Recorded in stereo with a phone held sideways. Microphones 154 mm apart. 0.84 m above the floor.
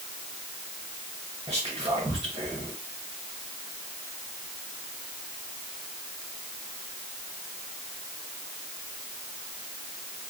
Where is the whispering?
25° right (ahead or behind), 0.7 m.